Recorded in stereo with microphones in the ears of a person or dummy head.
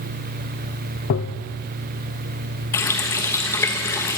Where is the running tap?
20° left (ahead or behind), 1.1 m.